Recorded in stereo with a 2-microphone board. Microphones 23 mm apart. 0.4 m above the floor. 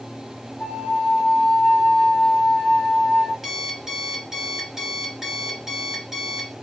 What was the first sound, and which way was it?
A flute, 40° left (ahead or behind).